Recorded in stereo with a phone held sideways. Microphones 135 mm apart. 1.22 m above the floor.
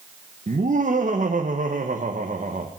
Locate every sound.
0.5 s laughter: 75° right (ahead or behind), 1.2 m